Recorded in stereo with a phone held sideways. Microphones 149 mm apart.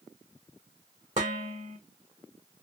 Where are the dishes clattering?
55° right (ahead or behind), 2 m.